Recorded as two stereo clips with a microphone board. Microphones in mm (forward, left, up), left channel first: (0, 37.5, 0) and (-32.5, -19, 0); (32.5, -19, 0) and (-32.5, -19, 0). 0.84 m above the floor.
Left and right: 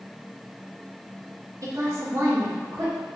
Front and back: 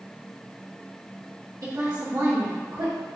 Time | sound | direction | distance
1.6 | a woman speaking | 155° right | 1.5 m